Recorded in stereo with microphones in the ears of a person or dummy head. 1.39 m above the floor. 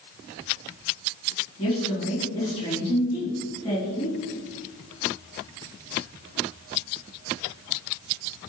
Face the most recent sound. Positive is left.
turn(degrees=25)  # may be behind; listen again after turning